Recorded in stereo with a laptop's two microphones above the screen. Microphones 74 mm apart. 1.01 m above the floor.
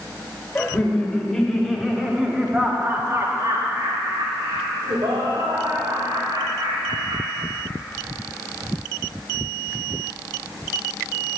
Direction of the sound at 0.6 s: 15° left (ahead or behind).